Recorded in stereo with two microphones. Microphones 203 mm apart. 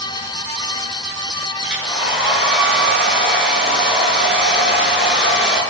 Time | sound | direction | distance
1.6 | a hair dryer | 5° right (ahead or behind) | 9.5 m